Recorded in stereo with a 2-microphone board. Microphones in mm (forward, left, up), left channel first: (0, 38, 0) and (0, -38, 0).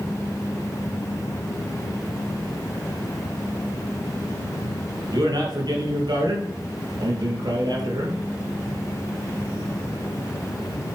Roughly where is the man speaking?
Right.